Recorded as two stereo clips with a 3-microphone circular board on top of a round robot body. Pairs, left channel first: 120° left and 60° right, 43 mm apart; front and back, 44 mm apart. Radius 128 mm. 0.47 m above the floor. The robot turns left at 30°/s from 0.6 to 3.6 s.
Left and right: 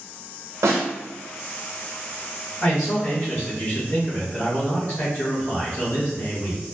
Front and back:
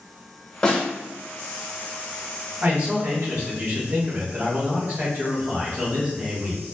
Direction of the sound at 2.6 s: 160° left.